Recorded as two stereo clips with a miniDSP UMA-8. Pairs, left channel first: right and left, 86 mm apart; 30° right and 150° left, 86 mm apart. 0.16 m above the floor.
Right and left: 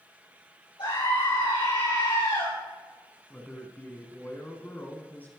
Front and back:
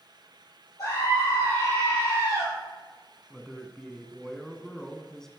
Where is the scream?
80° right, 5 m.